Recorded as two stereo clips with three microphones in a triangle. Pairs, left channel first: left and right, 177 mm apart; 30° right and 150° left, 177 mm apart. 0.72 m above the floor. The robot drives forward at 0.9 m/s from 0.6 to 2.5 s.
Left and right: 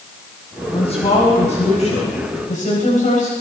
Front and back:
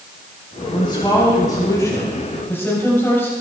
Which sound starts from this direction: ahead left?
A woman speaking, at 0.7 s.